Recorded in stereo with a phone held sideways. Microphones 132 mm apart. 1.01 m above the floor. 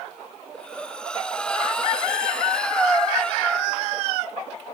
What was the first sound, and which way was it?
Breathing, 5° left (ahead or behind).